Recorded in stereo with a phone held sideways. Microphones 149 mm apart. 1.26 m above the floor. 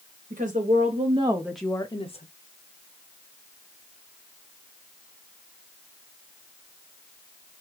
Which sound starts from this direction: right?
A woman speaking, at 0.3 s.